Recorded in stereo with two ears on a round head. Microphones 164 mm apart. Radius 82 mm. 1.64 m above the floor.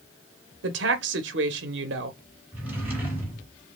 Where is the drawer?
10° right (ahead or behind), 3 m.